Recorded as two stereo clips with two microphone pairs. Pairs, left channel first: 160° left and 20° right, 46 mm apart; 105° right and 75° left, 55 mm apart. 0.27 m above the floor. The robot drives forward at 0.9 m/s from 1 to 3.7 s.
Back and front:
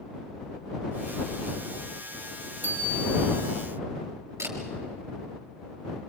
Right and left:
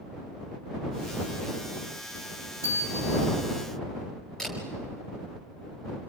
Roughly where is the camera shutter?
Ahead right.